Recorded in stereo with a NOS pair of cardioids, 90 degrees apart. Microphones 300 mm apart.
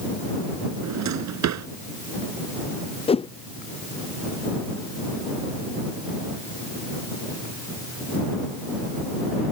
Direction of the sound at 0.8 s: 65° right.